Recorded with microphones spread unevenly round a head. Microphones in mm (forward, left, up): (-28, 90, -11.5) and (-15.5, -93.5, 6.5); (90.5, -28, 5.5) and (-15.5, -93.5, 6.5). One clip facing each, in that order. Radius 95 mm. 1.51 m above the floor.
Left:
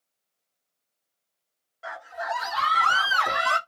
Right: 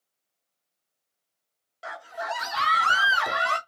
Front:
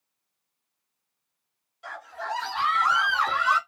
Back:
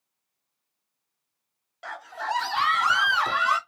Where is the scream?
130° right, 1.2 m; by 3.6 s 175° left, 0.7 m.